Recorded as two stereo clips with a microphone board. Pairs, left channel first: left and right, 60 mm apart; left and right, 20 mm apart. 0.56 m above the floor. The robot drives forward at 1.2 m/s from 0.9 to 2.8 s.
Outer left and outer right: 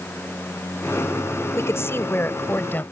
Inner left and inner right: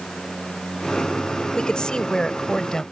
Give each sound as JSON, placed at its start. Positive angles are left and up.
{"t": 1.6, "sound": "a woman speaking", "side_deg": 55}